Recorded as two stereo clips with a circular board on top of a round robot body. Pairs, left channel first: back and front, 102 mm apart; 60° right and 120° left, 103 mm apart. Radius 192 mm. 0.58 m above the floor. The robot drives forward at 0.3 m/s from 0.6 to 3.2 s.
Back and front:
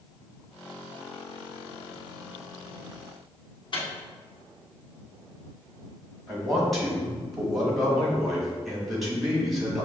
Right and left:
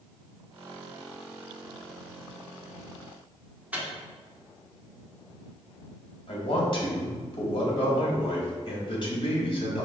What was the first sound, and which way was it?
A microwave, 165° right.